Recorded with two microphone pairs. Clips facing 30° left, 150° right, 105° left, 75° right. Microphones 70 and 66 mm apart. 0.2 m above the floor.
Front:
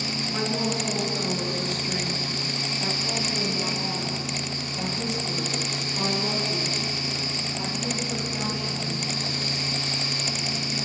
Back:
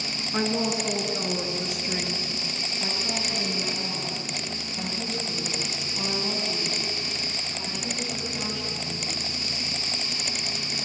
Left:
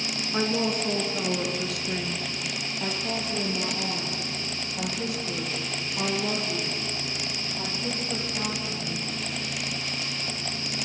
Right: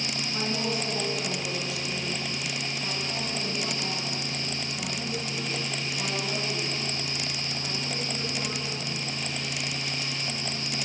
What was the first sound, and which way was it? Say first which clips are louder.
A woman speaking: back 2 dB, left 5 dB; 145° left.